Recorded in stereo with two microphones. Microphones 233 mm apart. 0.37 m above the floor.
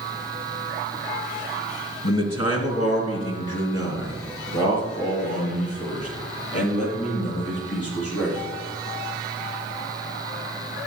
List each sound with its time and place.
2.0 s a man speaking: 75° left (ahead or behind), 3 m; by 8.5 s 85° left, 9.5 m